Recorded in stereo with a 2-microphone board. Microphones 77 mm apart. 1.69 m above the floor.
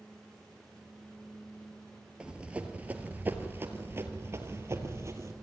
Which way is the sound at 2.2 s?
15° right (ahead or behind).